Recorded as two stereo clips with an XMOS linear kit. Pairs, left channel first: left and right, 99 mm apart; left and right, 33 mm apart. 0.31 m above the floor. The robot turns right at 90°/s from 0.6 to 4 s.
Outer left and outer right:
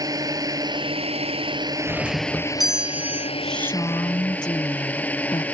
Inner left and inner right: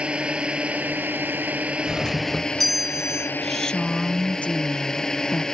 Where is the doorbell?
25° left (ahead or behind); by 3.3 s 25° right (ahead or behind).